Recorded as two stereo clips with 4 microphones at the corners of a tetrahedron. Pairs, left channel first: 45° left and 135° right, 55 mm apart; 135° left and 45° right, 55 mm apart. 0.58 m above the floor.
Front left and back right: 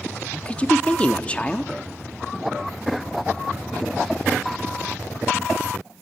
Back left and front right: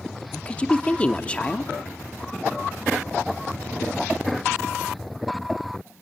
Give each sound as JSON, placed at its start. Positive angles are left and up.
{"t": 0.3, "sound": "a woman speaking", "azimuth_deg": 90, "distance_m": 0.9}